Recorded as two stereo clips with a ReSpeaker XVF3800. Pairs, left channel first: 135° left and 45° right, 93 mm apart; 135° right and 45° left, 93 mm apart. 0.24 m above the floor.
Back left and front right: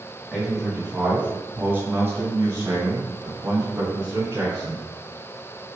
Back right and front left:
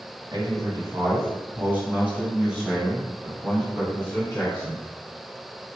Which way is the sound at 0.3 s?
45° left.